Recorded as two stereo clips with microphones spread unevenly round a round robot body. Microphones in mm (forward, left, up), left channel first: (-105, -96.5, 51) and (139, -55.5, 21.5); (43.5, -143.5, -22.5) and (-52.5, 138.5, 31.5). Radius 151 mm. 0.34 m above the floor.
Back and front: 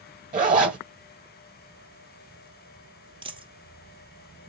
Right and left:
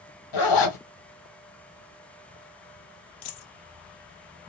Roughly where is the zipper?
Ahead right.